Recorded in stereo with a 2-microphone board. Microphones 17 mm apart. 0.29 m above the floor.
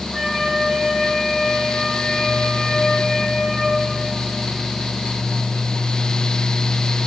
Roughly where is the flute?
Left.